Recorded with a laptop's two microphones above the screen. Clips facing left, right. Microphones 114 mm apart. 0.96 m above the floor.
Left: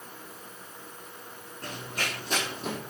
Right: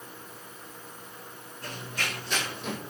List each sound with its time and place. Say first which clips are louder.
1.6 s running footsteps: left 1 dB; 45° left (ahead or behind), 4.5 m; by 2.8 s 35° left (ahead or behind), 3 m